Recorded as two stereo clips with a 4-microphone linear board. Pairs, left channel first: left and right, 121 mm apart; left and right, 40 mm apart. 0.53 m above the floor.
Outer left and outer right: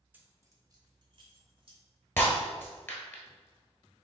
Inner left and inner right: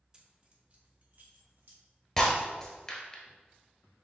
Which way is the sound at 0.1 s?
15° right (ahead or behind).